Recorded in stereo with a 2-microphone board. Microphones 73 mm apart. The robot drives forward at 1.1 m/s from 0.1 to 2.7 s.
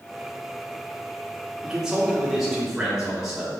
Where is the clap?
I don't hear a clap.